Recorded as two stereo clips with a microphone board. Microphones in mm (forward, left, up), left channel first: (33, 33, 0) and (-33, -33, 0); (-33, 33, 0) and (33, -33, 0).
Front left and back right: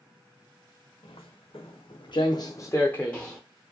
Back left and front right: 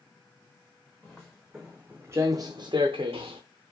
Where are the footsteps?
55° left, 0.9 m; by 3.4 s 40° right, 0.7 m.